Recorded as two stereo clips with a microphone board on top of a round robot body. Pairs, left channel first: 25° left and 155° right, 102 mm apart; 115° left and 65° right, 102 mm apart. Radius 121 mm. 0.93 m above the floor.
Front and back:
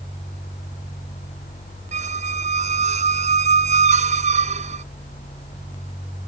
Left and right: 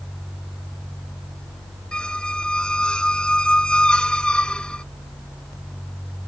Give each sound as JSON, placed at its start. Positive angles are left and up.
{"t": 1.9, "sound": "a squeak", "azimuth_deg": -165}